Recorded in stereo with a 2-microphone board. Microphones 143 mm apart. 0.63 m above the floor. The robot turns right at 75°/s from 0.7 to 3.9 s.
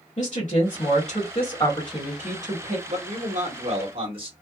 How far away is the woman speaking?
About 1.3 m.